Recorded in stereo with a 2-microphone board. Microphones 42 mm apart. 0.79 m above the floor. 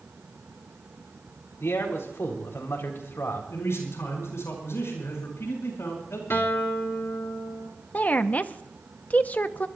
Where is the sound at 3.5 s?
85° left, 8 m.